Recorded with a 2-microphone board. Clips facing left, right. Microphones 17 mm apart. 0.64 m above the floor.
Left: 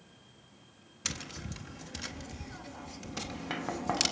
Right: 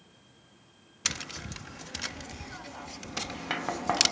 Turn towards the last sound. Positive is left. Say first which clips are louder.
# right 5 dB
turn(degrees=-20)  # may be behind; listen again after turning